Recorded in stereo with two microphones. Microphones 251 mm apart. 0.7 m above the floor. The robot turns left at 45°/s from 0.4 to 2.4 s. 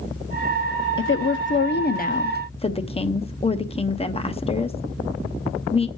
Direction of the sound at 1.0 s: 95° left.